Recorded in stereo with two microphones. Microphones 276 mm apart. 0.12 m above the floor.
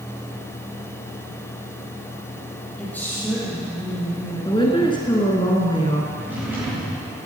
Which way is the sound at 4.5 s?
20° left (ahead or behind).